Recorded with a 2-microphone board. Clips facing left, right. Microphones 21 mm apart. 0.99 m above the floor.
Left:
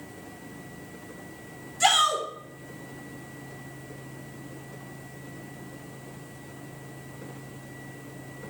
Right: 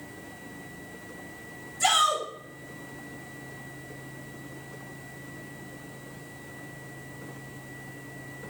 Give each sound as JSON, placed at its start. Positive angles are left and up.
{"t": 1.8, "sound": "a shout", "side_deg": 50, "distance_m": 3.5}